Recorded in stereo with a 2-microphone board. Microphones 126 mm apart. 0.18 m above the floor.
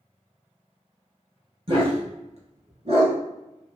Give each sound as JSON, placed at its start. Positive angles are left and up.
{"t": 1.7, "sound": "a dog barking", "side_deg": -45, "distance_m": 1.4}